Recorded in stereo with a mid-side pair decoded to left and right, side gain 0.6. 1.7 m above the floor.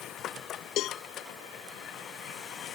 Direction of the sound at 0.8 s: 60° left.